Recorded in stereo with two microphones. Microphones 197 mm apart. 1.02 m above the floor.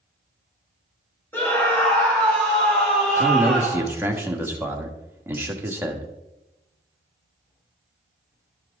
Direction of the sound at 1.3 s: 10° left (ahead or behind).